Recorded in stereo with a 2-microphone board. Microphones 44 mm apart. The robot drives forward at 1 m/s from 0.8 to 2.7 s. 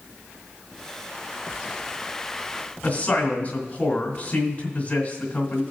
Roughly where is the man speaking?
Left.